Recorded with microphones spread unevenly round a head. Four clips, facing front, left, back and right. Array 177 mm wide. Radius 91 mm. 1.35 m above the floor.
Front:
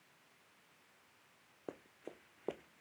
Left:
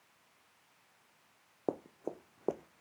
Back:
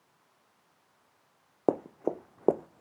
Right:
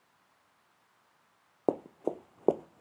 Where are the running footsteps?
155° right; by 2.8 s 145° right.